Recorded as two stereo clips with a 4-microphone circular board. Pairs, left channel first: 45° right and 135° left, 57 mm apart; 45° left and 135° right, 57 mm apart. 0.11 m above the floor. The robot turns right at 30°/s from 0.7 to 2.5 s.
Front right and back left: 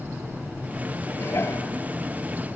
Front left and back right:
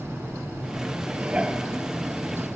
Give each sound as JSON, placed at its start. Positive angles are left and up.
{"t": 1.1, "sound": "dishes clattering", "azimuth_deg": -75, "distance_m": 1.3}